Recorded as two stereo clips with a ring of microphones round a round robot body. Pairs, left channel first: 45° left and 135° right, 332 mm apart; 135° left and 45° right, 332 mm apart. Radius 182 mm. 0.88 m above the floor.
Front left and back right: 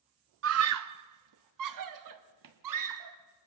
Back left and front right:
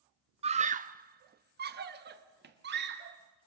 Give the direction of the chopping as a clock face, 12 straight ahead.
I don't hear chopping.